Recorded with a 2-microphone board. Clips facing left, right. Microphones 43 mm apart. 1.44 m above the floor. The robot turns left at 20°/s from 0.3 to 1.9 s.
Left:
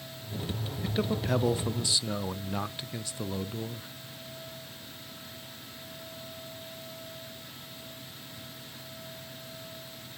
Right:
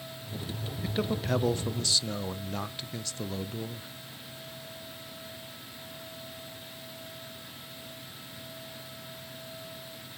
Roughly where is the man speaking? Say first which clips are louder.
Left 1 dB; centre.